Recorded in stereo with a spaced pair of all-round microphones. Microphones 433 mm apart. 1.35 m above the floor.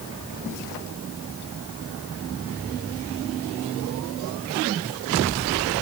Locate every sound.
Only background noise.